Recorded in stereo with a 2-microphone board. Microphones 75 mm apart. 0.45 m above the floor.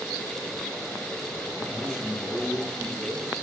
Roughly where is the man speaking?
Centre.